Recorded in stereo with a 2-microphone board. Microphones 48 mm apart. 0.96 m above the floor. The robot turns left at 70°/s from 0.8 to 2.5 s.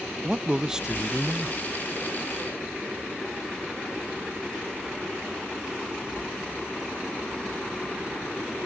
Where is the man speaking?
15° right (ahead or behind); by 1.6 s 5° left (ahead or behind).